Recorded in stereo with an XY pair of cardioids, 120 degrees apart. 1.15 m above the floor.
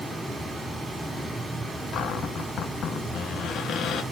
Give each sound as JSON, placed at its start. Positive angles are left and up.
{"t": 0.0, "sound": "running water", "azimuth_deg": -15, "distance_m": 2.5}
{"t": 1.9, "sound": "a cupboard door", "azimuth_deg": 60, "distance_m": 1.1}